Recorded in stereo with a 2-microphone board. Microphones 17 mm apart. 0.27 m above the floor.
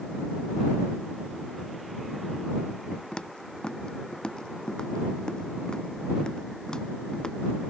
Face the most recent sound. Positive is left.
turn(degrees=50)  # may be behind; listen again after turning